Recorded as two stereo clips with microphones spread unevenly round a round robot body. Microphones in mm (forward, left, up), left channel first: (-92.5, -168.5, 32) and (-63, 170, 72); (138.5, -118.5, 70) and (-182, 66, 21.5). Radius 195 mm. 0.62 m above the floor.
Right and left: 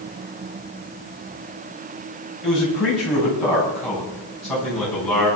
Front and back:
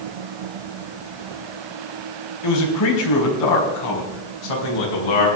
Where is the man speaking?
5° right, 4.5 m; by 5.3 s 10° right, 6 m.